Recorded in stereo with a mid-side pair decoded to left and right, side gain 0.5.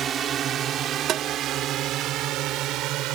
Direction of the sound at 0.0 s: 50° right.